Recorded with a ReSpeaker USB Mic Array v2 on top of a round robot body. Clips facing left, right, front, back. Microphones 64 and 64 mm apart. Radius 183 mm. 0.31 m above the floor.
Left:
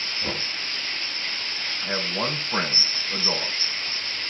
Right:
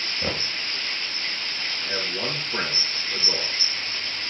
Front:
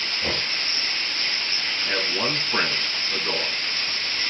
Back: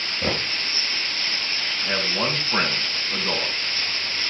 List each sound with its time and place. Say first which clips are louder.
0.2 s knocking: right 2 dB, back 4 dB; 145° right, 5.5 m
1.8 s a man speaking: left 3 dB, back 1 dB; 115° left, 3.5 m